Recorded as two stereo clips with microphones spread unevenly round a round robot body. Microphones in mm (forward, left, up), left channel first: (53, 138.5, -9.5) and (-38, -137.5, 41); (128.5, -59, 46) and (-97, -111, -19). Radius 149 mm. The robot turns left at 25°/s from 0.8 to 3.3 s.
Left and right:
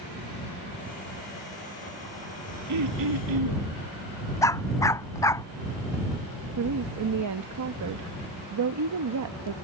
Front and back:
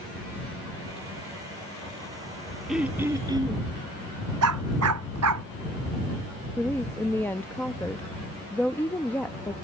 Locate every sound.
2.7 s throat clearing: 80° right; by 3.7 s 95° right
4.4 s a dog barking: 155° left
6.6 s a woman speaking: 80° right